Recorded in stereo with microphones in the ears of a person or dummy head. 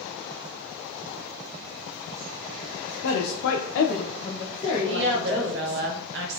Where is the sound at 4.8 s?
65° right (ahead or behind), 0.9 m.